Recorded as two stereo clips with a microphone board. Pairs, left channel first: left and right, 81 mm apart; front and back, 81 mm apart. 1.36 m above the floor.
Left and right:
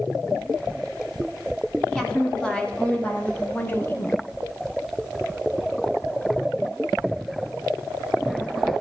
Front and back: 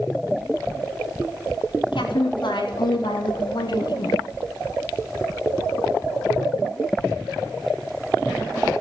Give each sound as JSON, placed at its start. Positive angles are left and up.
{"t": 1.9, "sound": "a woman speaking", "azimuth_deg": 10, "distance_m": 2.5}